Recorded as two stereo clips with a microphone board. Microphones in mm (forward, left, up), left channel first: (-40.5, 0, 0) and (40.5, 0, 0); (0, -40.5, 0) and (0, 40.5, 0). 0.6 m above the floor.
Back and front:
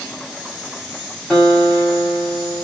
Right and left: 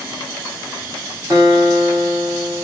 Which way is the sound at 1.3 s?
90° left.